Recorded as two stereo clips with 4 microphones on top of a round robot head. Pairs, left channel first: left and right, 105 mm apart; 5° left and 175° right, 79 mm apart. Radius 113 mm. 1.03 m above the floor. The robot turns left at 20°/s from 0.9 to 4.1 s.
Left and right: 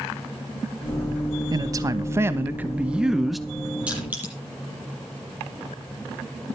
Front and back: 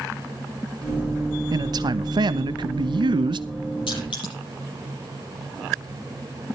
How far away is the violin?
I don't hear a violin.